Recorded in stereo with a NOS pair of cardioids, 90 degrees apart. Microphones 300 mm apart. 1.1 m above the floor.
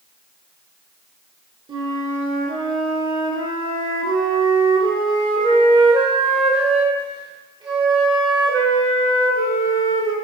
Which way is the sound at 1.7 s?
15° right.